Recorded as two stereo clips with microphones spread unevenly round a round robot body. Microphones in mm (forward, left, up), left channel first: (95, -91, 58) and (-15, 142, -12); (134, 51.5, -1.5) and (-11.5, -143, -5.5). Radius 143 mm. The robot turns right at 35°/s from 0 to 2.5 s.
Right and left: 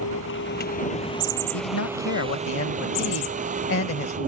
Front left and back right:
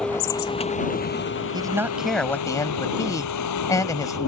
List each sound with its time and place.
0.0 s a vehicle: 35° right; by 4.3 s 55° left
1.5 s a man speaking: 55° right; by 4.3 s 20° right